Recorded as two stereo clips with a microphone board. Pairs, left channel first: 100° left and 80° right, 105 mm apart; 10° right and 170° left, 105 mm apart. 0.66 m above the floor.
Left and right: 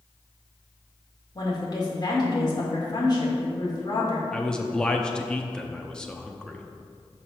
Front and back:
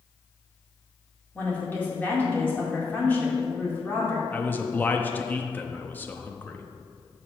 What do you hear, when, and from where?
1.4 s a woman speaking: 60° left, 2 m
4.3 s a man speaking: 35° left, 0.6 m